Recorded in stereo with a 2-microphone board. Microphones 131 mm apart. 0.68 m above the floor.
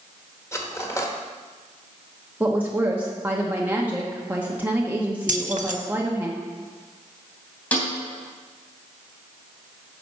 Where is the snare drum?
10° left (ahead or behind), 3 m.